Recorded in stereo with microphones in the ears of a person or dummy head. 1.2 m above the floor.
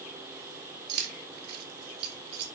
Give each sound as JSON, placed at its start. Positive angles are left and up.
{"t": 0.9, "sound": "keys jangling", "side_deg": -55, "distance_m": 2.0}